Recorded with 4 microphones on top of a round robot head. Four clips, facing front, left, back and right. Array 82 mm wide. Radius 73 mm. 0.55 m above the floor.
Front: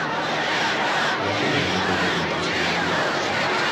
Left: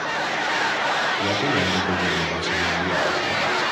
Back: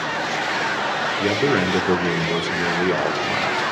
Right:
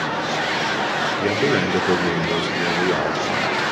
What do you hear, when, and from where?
1.2 s a man speaking: 140° right, 1.9 m